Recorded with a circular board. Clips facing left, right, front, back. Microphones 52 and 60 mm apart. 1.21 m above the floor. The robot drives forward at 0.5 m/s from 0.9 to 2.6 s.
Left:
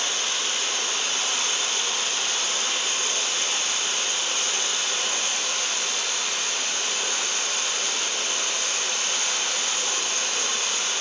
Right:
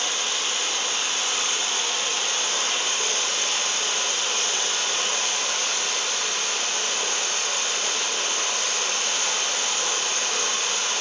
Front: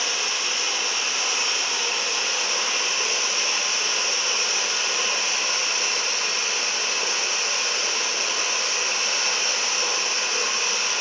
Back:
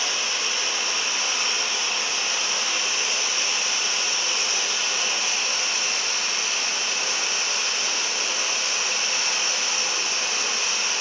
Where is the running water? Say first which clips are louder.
Right 1 dB, even; 25° right, 1.4 m; by 11.0 s 50° right, 0.7 m.